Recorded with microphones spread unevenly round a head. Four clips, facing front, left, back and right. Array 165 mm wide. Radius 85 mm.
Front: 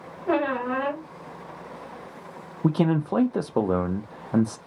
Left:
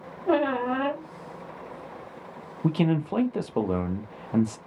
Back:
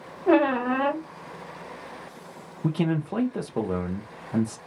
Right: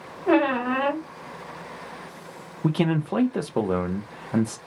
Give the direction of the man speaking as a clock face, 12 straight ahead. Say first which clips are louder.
Right 1 dB, front 4 dB; 1 o'clock.